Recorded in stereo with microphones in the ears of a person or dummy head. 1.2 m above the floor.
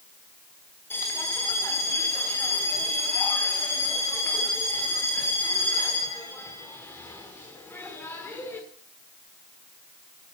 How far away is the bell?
About 1.4 m.